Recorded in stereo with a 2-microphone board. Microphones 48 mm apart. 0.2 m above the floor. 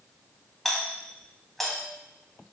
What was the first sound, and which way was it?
A doorbell, 5° left (ahead or behind).